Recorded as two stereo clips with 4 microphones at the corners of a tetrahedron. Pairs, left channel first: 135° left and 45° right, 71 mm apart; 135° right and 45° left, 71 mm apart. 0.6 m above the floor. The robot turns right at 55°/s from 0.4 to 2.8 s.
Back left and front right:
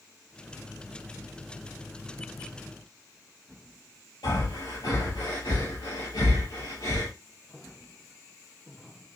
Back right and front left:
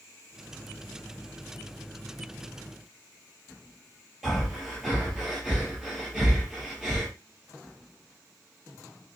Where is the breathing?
140° left, 3 m.